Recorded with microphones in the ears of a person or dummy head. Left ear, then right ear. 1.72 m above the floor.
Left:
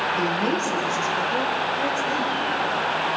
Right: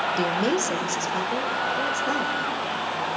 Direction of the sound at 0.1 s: 65° right (ahead or behind).